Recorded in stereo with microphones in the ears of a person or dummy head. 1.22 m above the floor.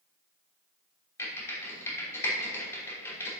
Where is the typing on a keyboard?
20° left (ahead or behind), 3 m.